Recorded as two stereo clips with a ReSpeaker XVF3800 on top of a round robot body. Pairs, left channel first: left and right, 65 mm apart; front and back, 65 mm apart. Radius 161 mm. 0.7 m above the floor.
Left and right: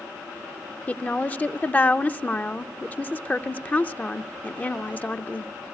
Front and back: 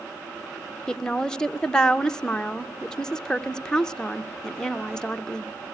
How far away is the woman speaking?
About 0.8 m.